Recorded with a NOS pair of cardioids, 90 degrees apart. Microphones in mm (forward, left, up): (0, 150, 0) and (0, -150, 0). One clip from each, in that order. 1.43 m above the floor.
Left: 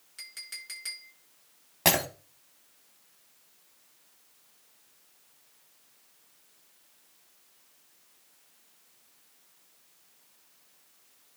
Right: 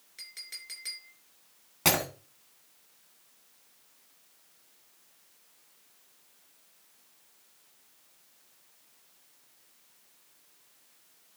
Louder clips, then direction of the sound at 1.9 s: Left 2 dB; 5° left.